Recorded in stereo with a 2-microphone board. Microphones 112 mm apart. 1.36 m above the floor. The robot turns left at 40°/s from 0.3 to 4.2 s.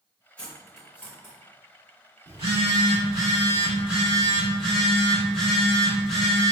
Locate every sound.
0.4 s cutlery clinking: 10° left (ahead or behind), 1.1 m; by 1.3 s 25° right (ahead or behind), 1.1 m
2.3 s a phone buzzing: 105° right, 1.8 m; by 6.5 s 175° left, 1.8 m